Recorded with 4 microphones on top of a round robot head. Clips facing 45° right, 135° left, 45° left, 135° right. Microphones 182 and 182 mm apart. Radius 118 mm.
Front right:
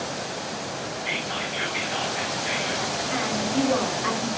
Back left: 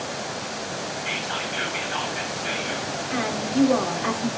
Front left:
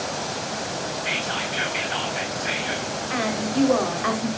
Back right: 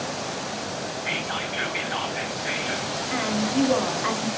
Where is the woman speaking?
90° left, 3 m.